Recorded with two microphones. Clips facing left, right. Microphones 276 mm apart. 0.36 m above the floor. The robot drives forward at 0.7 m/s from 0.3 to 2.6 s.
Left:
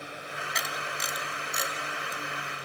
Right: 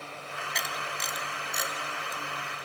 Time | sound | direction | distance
0.6 | a camera shutter | 5° left (ahead or behind) | 1.9 m